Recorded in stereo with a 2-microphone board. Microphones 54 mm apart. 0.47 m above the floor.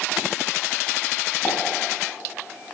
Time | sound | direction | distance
1.4 | a pop | 25° left (ahead or behind) | 1.8 m